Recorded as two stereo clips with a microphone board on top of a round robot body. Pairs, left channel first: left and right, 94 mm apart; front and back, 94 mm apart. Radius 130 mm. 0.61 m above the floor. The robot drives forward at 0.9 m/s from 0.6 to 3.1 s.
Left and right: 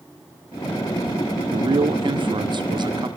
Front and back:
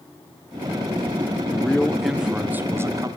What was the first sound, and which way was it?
A man speaking, 75° right.